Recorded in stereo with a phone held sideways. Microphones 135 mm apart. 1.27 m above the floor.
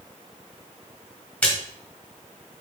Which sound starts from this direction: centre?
A splash, at 1.4 s.